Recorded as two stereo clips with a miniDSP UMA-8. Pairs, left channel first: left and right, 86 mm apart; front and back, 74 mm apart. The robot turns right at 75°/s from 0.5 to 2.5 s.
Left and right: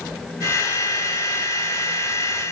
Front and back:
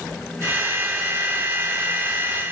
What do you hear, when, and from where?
Only background noise.